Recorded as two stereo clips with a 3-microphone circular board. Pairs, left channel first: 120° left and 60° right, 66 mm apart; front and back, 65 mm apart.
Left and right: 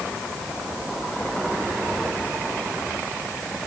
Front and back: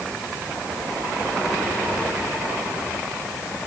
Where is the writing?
No writing in this recording.